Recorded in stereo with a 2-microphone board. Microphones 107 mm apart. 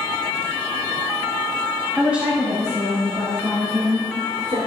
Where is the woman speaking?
5° right (ahead or behind), 1.8 m; by 4.6 s 65° right (ahead or behind), 3.5 m.